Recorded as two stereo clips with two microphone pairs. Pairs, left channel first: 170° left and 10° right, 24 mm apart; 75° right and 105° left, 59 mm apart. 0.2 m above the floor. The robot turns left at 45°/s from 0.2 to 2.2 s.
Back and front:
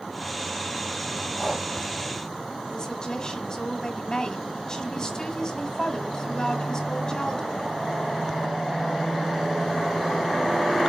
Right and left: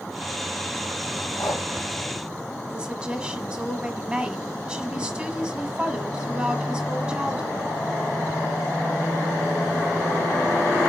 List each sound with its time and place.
1.4 s breathing: 105° right, 4 m; by 1.7 s 115° right, 4 m
2.7 s a woman speaking: 165° left, 1.6 m